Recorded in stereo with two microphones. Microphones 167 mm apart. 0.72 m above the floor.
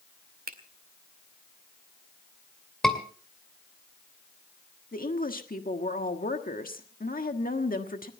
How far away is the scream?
About 2.5 m.